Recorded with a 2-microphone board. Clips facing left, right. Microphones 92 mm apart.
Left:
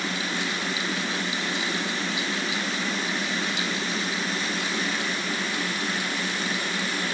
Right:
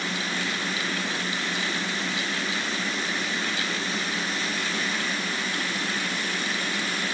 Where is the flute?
No flute in this recording.